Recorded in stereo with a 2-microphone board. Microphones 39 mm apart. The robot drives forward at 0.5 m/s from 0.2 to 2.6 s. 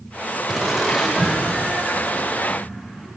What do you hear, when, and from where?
0.5 s laughter: 10° right (ahead or behind), 1.0 m; by 3.1 s 5° right (ahead or behind), 1.9 m